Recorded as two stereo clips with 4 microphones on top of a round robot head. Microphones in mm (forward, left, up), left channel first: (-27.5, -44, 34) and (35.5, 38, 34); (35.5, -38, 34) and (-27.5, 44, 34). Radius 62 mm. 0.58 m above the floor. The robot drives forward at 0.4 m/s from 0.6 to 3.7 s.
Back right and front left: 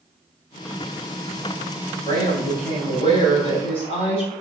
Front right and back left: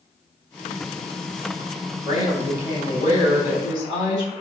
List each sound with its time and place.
2.0 s a woman speaking: 80° right, 4 m; by 4.3 s 90° right, 4 m